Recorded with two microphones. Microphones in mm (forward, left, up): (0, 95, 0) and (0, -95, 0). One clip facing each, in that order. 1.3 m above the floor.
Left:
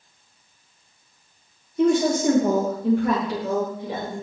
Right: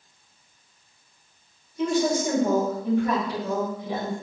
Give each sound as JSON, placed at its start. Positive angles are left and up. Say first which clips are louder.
{"t": 1.8, "sound": "a woman speaking", "louder": "left 4 dB", "side_deg": 60, "distance_m": 1.0}